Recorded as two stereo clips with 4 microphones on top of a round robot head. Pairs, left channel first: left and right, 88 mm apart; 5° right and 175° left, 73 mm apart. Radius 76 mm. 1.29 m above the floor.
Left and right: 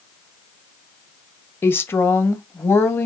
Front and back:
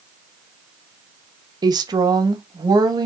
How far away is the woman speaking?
About 1.4 m.